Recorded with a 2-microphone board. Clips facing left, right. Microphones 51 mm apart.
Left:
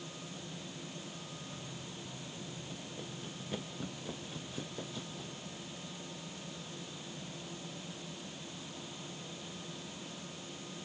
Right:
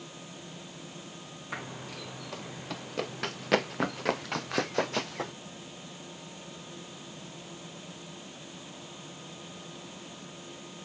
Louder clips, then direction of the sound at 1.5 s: Right 7 dB; 75° right (ahead or behind).